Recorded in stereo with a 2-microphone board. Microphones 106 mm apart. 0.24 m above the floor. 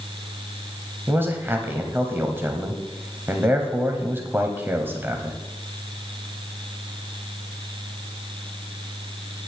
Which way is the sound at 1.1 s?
20° right (ahead or behind).